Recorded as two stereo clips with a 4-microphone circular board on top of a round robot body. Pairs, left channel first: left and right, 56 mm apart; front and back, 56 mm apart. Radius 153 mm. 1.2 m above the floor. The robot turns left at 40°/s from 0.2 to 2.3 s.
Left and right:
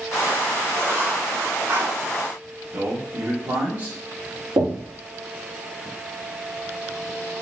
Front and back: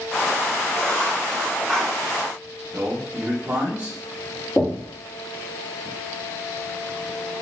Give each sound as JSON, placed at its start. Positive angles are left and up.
{"t": 0.8, "sound": "writing", "azimuth_deg": -40, "distance_m": 2.5}
{"t": 2.7, "sound": "a man speaking", "azimuth_deg": -125, "distance_m": 1.4}
{"t": 4.6, "sound": "knocking", "azimuth_deg": -80, "distance_m": 1.4}